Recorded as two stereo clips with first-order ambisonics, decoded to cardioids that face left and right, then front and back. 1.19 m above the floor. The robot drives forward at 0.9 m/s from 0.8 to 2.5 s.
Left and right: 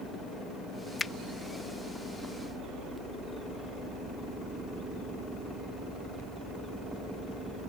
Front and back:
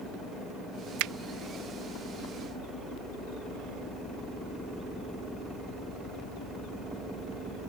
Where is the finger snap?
165° left.